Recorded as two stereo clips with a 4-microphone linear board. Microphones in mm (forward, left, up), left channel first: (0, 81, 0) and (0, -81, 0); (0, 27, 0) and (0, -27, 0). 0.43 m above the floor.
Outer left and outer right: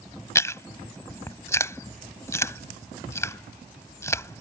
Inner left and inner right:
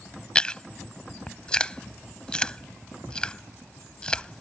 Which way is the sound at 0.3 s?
15° left (ahead or behind).